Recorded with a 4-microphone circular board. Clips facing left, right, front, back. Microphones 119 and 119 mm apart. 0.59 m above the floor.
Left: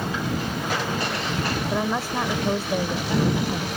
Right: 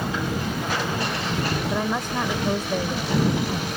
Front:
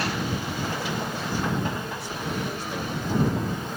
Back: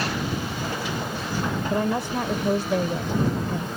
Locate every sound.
1.7 s a woman speaking: 175° left